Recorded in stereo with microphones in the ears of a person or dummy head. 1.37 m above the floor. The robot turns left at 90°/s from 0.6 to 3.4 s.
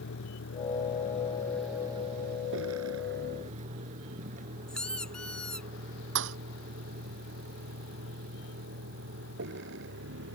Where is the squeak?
15° left (ahead or behind).